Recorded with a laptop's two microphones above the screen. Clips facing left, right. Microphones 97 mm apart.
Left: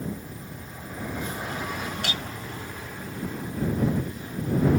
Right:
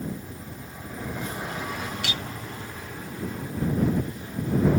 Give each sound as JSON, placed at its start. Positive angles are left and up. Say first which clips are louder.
{"t": 2.0, "sound": "a clink", "louder": "left 1 dB", "side_deg": 45}